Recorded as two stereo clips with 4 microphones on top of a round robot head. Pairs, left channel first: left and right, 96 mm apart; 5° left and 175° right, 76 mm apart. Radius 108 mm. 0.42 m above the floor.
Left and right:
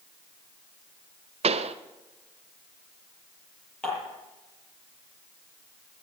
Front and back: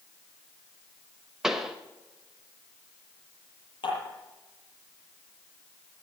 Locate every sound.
1.4 s a pop: 90° right, 0.7 m
3.8 s dishes clattering: 10° left, 8.5 m